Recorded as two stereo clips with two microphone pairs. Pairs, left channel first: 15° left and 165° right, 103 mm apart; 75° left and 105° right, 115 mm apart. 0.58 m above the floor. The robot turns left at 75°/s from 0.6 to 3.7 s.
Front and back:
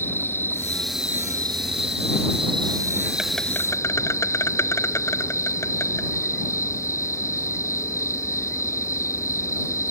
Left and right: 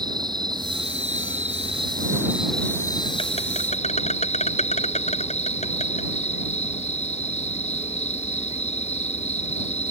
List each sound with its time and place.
0.0 s an insect: 55° right; by 9.9 s 75° left